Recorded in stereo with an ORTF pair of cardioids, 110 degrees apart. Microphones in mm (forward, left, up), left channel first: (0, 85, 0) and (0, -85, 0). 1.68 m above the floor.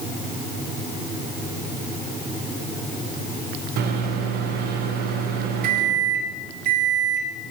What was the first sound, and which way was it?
A microwave, 70° right.